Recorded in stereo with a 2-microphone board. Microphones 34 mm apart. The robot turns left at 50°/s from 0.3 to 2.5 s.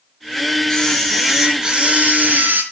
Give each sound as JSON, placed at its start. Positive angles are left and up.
{"t": 0.7, "sound": "a camera shutter", "azimuth_deg": 25, "distance_m": 4.0}